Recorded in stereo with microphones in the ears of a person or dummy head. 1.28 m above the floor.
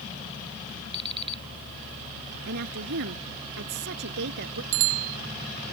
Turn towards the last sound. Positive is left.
turn(degrees=-85)